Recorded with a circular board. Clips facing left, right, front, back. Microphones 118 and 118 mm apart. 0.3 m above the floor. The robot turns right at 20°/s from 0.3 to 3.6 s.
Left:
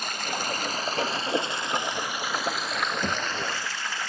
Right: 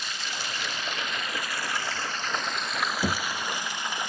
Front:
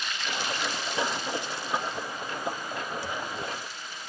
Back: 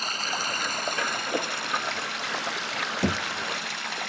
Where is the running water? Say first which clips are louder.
Left 5 dB, back 2 dB; 130° left; by 4.1 s 165° right.